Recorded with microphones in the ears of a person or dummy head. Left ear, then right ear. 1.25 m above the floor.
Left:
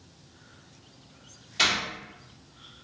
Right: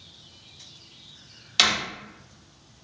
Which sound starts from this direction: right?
A door slam, at 1.6 s.